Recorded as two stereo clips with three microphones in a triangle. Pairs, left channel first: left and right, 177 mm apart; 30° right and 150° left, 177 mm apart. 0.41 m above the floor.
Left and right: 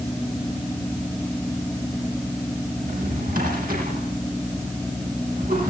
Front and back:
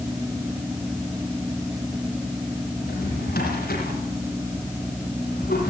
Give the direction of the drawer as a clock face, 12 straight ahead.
2 o'clock.